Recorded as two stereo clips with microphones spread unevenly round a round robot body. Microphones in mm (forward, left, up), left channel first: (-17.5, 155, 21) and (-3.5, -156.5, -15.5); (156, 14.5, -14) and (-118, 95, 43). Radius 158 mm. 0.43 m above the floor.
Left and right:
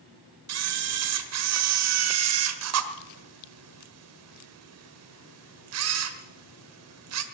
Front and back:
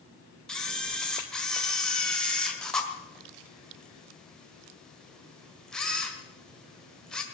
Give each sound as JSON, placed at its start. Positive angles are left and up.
{"t": 0.5, "sound": "a camera shutter", "azimuth_deg": -95, "distance_m": 1.4}